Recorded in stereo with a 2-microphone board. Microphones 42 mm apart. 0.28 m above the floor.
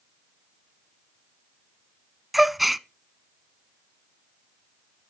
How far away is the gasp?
About 0.5 m.